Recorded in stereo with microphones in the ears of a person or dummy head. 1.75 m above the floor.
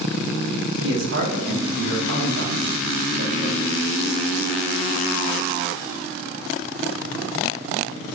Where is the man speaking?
80° right, 3 m.